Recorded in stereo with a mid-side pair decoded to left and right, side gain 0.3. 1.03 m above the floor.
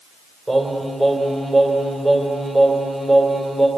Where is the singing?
35° right, 4.5 m.